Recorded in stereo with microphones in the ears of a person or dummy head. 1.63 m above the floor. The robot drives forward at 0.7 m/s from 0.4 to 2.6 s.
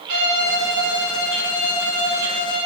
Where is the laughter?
No laughter in this recording.